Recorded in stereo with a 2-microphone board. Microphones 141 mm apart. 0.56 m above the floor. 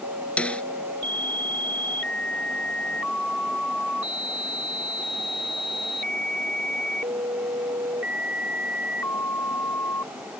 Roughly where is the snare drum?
Centre.